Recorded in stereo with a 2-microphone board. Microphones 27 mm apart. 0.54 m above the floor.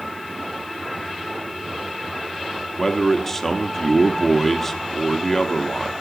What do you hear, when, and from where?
2.8 s a man speaking: 10° left (ahead or behind), 1.0 m